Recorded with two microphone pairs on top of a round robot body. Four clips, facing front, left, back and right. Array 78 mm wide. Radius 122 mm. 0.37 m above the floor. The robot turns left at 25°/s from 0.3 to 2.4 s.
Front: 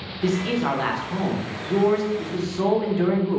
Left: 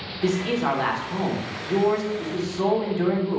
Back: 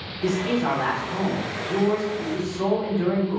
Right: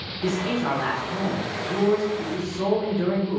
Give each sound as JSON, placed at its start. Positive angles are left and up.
{"t": 0.2, "sound": "a man speaking", "azimuth_deg": 80, "distance_m": 1.0}